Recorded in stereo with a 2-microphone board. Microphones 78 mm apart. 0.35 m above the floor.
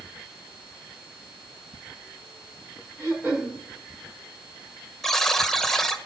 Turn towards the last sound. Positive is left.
turn(degrees=5)  # may be behind; listen again after turning